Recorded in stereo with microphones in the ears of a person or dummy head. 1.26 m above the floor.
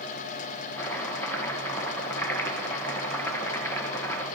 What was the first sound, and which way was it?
Chopping, 15° left (ahead or behind).